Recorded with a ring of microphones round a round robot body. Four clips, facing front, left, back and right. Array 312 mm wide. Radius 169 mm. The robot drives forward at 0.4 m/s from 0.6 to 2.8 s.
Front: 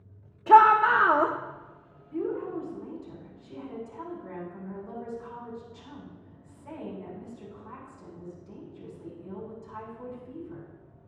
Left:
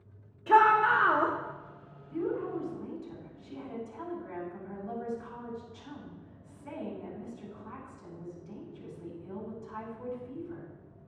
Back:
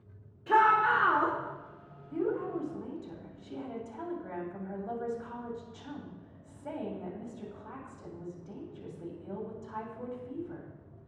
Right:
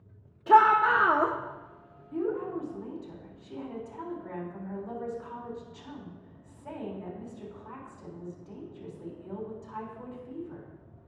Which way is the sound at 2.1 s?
160° right.